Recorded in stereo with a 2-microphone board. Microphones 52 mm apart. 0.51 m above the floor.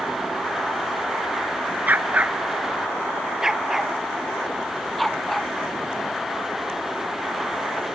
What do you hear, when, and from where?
1.9 s a dog barking: 35° right (ahead or behind); by 5.5 s 5° left (ahead or behind)